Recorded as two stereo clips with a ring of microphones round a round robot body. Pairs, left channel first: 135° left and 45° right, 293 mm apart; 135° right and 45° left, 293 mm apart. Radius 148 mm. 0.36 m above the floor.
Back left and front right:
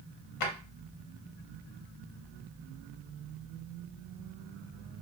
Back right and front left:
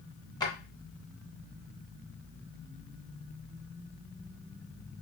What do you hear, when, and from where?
0.4 s a drawer: 150° left, 0.7 m